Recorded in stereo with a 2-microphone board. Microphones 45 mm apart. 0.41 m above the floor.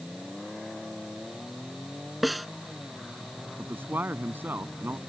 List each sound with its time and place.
2.2 s a snare drum: centre (ahead or behind)
3.6 s a man speaking: 50° right (ahead or behind)